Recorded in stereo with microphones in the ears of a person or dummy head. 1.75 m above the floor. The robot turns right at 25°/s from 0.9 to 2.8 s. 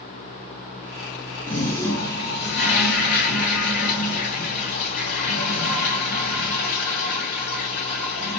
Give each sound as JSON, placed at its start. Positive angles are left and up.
{"t": 1.5, "sound": "a toilet flushing", "azimuth_deg": 10, "distance_m": 3.0}